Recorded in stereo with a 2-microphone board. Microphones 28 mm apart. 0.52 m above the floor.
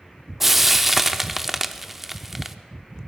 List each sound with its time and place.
0.4 s frying: 5° right (ahead or behind), 0.6 m